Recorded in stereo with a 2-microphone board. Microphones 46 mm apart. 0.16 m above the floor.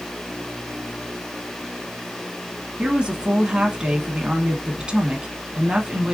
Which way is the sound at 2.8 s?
20° right (ahead or behind).